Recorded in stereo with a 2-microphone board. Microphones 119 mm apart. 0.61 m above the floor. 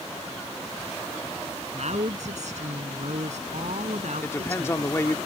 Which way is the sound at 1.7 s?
75° right (ahead or behind).